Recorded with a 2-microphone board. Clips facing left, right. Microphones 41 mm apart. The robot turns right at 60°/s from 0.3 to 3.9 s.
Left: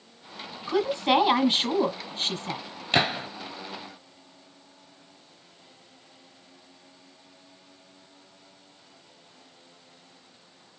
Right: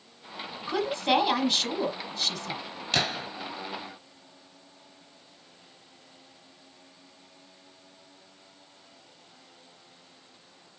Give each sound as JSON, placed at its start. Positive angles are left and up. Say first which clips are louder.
{"t": 0.7, "sound": "a woman speaking", "louder": "left 3 dB", "azimuth_deg": -10, "distance_m": 1.3}
{"t": 2.9, "sound": "a gunshot", "louder": "left 4 dB", "side_deg": 30, "distance_m": 0.6}